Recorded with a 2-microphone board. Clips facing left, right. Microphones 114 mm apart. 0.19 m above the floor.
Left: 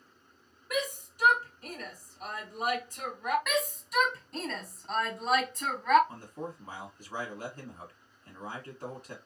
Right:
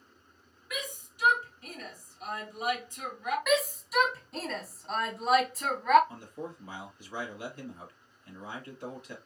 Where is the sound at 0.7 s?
40° left (ahead or behind), 2 m.